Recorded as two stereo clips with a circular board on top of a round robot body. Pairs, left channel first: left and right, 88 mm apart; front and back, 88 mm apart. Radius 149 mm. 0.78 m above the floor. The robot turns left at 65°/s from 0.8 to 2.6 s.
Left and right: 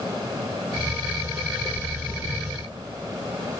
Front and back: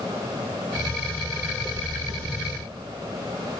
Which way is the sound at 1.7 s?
135° right.